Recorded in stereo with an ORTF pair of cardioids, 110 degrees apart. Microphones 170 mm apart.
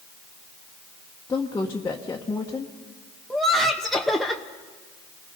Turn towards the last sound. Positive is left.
turn(degrees=0)